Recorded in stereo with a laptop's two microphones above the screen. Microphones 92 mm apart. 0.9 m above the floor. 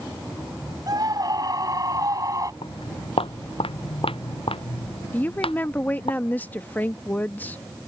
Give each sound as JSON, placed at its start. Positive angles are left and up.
{"t": 0.9, "sound": "a scream", "side_deg": -45}
{"t": 2.6, "sound": "footsteps", "side_deg": 75}
{"t": 5.1, "sound": "a woman speaking", "side_deg": 20}